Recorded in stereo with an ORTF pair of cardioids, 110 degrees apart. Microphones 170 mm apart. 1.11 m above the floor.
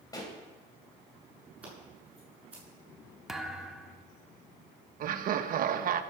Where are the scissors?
10° right, 7 m.